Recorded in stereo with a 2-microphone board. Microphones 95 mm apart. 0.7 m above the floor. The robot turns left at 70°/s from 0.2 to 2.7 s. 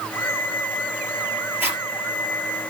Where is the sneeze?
No sneeze in this recording.